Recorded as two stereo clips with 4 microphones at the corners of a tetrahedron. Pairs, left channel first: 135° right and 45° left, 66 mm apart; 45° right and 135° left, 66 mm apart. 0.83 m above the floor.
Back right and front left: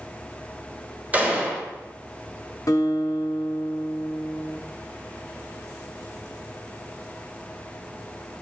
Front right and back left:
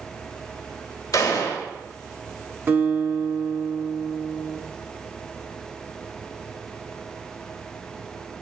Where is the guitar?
165° right, 0.9 m.